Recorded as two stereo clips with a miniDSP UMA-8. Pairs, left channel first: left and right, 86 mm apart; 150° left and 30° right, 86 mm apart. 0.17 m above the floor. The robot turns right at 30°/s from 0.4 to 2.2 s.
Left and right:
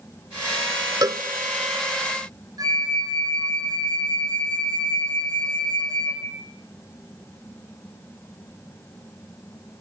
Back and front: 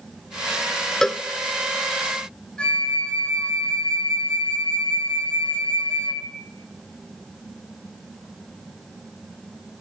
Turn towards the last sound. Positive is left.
turn(degrees=-130)